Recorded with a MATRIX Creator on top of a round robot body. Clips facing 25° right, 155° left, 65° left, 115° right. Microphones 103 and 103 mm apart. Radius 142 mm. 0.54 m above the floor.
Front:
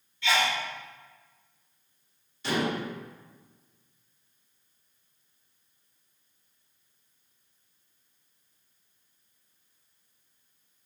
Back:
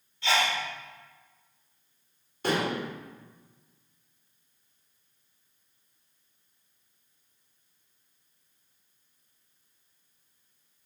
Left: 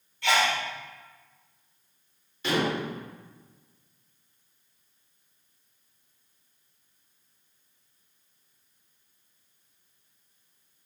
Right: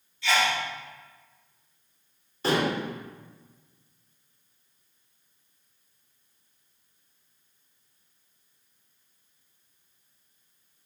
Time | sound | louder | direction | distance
0.2 | a sneeze | even, left 1 dB | 105° left | 3 m
2.4 | dishes clattering | back 1 dB, right 2 dB | 165° right | 1.3 m